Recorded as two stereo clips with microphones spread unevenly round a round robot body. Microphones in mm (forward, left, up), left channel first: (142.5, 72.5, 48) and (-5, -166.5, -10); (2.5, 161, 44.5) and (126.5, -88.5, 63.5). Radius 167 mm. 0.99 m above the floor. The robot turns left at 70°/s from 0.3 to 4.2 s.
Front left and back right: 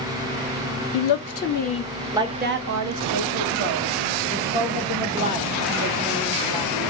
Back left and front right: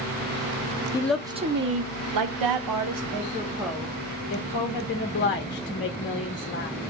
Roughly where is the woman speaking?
Ahead left.